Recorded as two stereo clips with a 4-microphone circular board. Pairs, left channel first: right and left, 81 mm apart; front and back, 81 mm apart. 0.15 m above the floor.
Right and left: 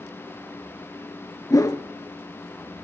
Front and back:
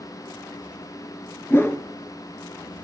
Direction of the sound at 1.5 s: 55° right.